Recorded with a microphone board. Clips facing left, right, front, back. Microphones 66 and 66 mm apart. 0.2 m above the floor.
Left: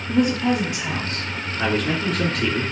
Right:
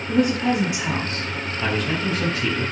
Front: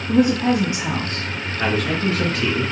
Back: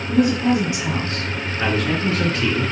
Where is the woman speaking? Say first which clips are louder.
Even, front 1 dB; 15° left, 1.3 m; by 1.3 s 50° right, 1.4 m.